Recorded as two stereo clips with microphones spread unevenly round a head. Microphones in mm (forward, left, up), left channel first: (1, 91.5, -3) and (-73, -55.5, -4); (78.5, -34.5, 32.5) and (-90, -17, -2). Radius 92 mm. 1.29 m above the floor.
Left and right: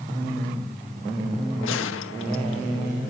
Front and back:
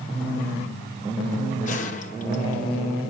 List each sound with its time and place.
1.6 s a gunshot: 50° left, 2 m